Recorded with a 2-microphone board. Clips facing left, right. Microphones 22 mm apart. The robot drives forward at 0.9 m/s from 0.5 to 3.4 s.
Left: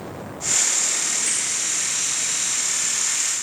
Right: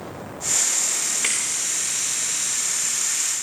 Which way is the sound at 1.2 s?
70° right (ahead or behind).